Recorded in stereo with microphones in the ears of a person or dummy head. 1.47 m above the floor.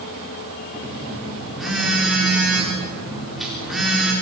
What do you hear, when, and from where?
0.7 s a phone buzzing: centre (ahead or behind), 4 m